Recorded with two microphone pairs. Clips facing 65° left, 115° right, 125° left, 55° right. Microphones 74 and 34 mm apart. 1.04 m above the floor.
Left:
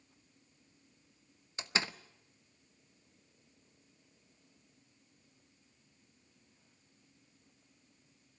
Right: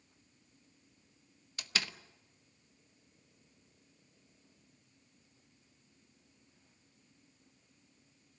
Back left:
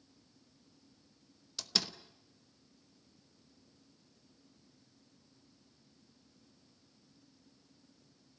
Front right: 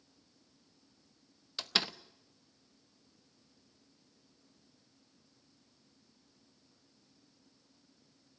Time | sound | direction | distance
1.6 | a door slam | straight ahead | 0.8 m